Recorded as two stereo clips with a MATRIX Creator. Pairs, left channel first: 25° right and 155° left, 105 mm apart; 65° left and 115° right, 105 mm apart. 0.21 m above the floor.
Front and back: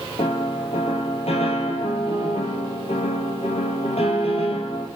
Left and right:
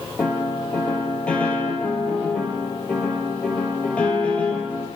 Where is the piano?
10° right, 1.2 m.